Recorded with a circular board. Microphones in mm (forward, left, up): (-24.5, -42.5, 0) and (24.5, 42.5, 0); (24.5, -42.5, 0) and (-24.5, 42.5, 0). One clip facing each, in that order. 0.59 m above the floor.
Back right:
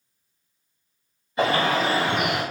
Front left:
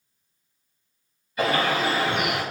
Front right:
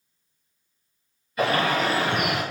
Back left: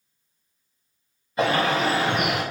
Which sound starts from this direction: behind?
A bird, at 1.4 s.